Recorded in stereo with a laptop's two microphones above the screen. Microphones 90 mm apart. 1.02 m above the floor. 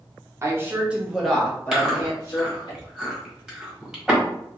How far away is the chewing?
About 1.4 m.